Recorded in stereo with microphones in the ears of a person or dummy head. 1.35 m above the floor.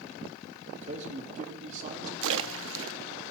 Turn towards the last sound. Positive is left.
turn(degrees=-70)  # may be behind; listen again after turning